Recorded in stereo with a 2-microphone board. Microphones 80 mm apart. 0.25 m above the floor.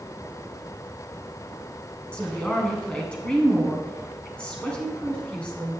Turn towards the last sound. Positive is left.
turn(degrees=15)  # may be behind; listen again after turning